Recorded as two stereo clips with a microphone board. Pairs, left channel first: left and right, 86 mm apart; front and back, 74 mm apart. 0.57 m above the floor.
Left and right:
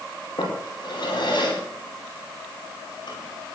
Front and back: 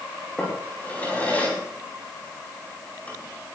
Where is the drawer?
70° left, 8.5 m.